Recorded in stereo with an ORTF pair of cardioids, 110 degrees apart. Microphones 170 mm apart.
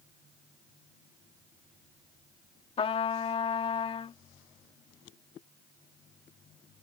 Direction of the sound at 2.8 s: 35° left.